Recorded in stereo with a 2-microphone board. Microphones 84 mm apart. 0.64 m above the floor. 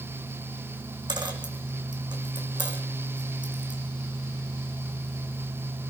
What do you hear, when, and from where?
1.1 s a dropped coin: 65° right (ahead or behind), 2.5 m